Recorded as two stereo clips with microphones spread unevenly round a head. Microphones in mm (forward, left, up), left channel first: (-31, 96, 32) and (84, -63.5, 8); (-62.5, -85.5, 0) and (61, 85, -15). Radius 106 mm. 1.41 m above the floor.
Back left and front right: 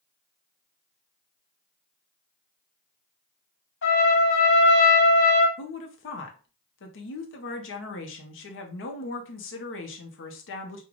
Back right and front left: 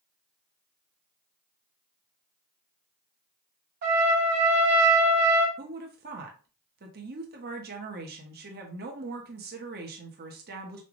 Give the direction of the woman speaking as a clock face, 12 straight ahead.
9 o'clock.